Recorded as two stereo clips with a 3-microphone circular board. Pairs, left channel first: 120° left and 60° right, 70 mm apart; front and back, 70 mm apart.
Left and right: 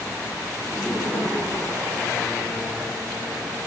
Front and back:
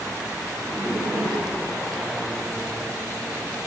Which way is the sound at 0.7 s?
100° left.